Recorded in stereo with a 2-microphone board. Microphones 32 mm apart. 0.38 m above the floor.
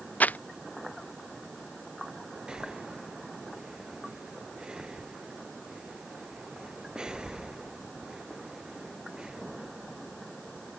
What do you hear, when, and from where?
0.2 s crumpling: 55° left (ahead or behind)
2.5 s breathing: 25° right (ahead or behind)